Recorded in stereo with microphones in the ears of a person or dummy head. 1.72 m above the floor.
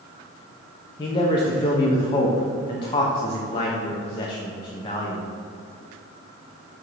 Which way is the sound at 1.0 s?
20° left (ahead or behind).